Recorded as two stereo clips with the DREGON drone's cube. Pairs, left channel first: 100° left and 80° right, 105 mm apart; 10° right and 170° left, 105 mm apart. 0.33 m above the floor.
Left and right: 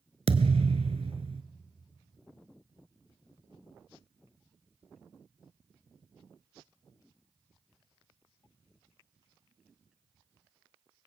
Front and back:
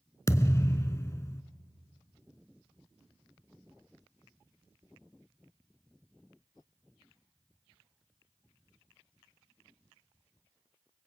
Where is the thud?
75° right, 1.0 m.